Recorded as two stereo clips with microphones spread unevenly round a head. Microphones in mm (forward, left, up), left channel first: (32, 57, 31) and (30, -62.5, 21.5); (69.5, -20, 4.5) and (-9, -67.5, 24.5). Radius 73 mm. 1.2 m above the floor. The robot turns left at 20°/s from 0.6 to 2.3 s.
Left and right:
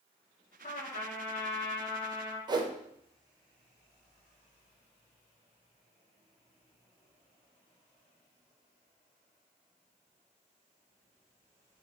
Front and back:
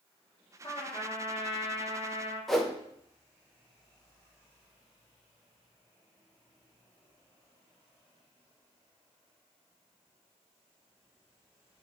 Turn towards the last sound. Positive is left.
turn(degrees=-50)